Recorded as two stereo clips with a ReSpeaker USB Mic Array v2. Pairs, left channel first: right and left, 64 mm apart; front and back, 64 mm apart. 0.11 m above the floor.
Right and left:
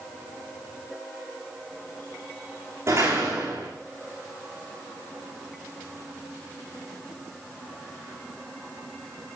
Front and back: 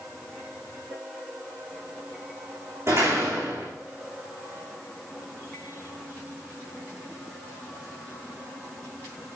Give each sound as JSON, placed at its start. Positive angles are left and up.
{"t": 2.9, "sound": "a door slam", "azimuth_deg": 140, "distance_m": 7.0}